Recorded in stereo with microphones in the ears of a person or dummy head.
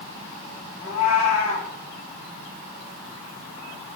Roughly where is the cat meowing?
Left.